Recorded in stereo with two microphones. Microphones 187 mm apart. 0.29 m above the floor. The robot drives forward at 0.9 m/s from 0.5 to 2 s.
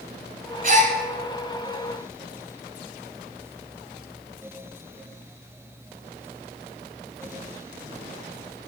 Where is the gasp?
50° right (ahead or behind), 1.3 m; by 0.9 s 40° right (ahead or behind), 1.5 m.